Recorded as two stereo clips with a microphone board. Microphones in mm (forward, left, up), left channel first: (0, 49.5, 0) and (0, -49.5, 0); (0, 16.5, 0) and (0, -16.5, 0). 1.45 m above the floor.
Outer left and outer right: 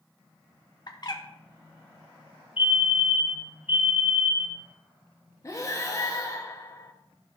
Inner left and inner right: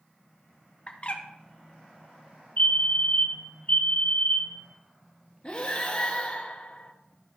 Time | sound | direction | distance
0.9 | a bird | 40° left (ahead or behind) | 1.0 m
2.6 | a fire alarm | 70° left (ahead or behind) | 2.0 m
5.4 | breathing | 35° left (ahead or behind) | 1.2 m